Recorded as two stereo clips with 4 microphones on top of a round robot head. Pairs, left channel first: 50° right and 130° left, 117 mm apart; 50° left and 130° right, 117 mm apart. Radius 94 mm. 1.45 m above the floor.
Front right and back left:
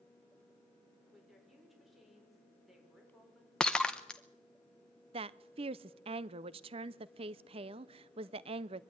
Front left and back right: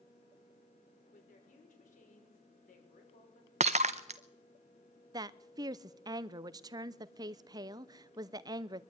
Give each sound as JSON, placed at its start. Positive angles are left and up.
{"t": 1.1, "sound": "a woman speaking", "azimuth_deg": 40, "distance_m": 5.5}
{"t": 3.6, "sound": "breaking glass", "azimuth_deg": -135, "distance_m": 0.5}
{"t": 5.1, "sound": "a woman speaking", "azimuth_deg": 170, "distance_m": 0.5}